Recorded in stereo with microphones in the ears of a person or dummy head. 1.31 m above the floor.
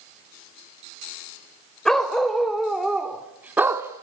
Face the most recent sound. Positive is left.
turn(degrees=-15)  # may be behind; listen again after turning